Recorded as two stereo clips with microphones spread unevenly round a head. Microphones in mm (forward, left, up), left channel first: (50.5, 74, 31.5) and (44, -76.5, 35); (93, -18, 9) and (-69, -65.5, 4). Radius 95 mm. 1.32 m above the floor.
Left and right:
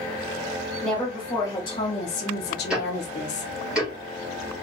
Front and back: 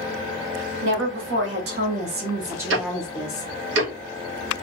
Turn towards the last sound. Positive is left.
turn(degrees=-175)